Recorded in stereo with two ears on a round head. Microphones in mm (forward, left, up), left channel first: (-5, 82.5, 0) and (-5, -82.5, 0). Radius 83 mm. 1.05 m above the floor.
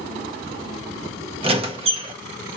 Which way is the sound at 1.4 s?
30° right (ahead or behind).